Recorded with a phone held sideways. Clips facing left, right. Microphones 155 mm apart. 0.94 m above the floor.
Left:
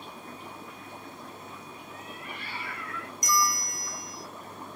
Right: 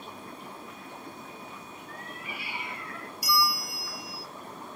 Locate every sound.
1.9 s a cat meowing: 10° left (ahead or behind), 0.8 m; by 3.1 s 40° right (ahead or behind), 0.8 m
3.2 s a bell: 5° right (ahead or behind), 0.7 m